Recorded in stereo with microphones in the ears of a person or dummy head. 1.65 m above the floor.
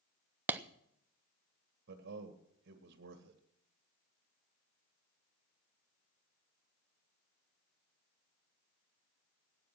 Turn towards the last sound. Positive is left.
turn(degrees=-55)  # may be behind; listen again after turning